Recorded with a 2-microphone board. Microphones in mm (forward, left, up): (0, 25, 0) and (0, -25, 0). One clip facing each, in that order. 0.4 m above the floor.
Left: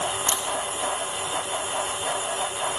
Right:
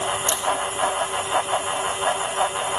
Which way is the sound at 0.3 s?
40° left (ahead or behind).